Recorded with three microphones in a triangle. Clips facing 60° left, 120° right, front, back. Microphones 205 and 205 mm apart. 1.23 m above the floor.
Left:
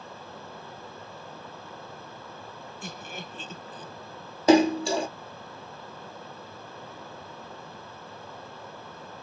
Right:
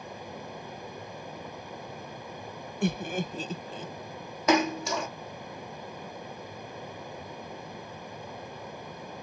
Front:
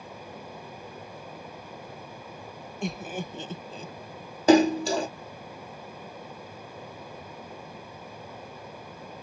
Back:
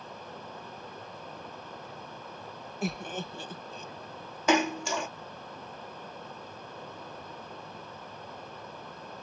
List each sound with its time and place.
2.8 s laughter: 95° right; by 3.9 s 50° right
4.5 s a splash: 25° left